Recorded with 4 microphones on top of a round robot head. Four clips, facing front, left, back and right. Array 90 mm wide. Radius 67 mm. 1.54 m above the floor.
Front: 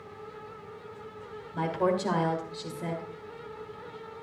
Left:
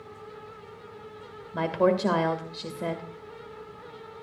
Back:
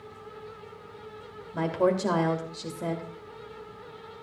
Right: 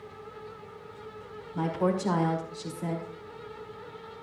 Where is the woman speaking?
115° left, 2.5 m.